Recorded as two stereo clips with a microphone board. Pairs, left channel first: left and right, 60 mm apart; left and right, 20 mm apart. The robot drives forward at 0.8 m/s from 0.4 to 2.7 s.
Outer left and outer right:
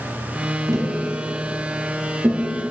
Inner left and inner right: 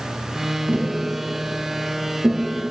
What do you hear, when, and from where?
0.7 s tapping: 80° right, 1.2 m; by 2.5 s 35° right (ahead or behind), 2 m